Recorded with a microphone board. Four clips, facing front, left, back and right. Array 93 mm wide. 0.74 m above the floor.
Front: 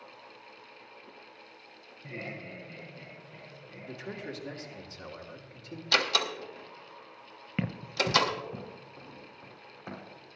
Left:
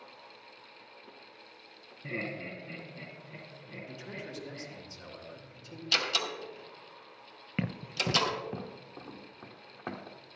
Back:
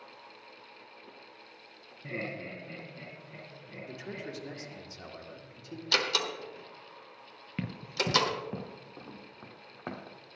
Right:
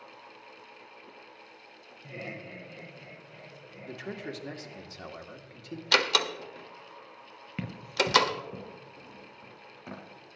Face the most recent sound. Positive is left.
turn(degrees=145)